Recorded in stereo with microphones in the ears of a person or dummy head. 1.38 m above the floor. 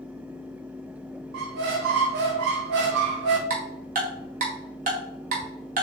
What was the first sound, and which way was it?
A squeak, 55° right (ahead or behind).